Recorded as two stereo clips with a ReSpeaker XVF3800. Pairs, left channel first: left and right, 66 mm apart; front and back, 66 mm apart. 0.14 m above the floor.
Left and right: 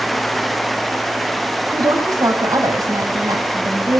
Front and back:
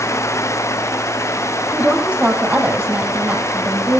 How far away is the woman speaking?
About 4.5 m.